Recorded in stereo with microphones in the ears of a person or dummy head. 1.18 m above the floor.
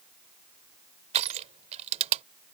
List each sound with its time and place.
1.1 s crushing: 40° right (ahead or behind)